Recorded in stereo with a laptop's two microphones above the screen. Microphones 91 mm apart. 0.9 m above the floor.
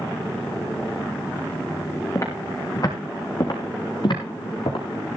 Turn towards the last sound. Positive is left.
turn(degrees=65)  # may be behind; listen again after turning